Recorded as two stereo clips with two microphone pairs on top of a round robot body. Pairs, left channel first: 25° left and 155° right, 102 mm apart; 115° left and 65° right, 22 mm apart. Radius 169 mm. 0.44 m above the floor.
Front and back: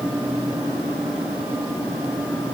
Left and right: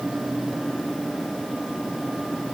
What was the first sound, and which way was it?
Only background noise.